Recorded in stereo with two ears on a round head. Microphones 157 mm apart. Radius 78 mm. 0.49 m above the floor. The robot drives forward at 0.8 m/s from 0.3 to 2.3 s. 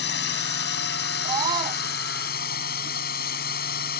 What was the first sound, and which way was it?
A drone, 70° left (ahead or behind).